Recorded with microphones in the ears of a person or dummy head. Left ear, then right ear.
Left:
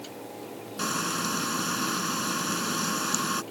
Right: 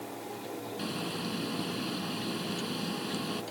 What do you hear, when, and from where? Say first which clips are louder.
0.8 s frying: left 9 dB; 55° left (ahead or behind)